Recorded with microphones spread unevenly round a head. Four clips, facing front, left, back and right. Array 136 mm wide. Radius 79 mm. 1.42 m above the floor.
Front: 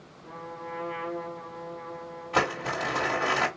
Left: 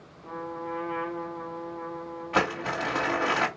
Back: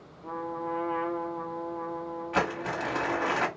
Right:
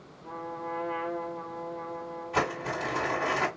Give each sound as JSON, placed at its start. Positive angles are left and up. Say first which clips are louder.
{"t": 0.2, "sound": "a trumpet", "louder": "left 2 dB, back 6 dB", "azimuth_deg": 170, "distance_m": 1.4}
{"t": 2.3, "sound": "crumpling", "louder": "left 3 dB, front 2 dB", "azimuth_deg": 95, "distance_m": 2.5}